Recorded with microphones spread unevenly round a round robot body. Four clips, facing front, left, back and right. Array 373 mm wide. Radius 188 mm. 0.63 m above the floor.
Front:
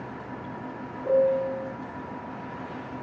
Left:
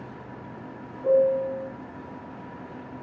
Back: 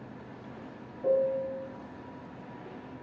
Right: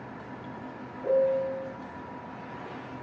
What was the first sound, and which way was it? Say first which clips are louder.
A piano: left 4 dB, front 5 dB; 145° right.